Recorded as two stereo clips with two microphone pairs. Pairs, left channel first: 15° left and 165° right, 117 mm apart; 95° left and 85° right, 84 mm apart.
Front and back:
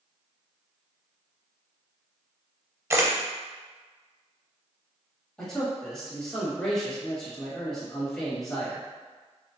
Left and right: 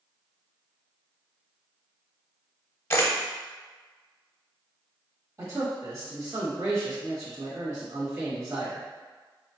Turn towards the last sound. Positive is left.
turn(degrees=-65)